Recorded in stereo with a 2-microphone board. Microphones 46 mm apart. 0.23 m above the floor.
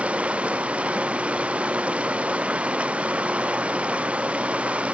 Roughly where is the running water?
Right.